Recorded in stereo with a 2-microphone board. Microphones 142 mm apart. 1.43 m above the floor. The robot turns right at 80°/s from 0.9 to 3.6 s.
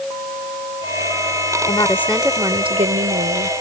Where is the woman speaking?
140° left; by 3.5 s 70° right.